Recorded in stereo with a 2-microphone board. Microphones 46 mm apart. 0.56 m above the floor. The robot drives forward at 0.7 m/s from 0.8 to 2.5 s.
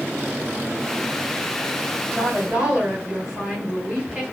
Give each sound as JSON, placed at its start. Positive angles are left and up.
{"t": 2.1, "sound": "a woman speaking", "side_deg": -15, "distance_m": 2.5}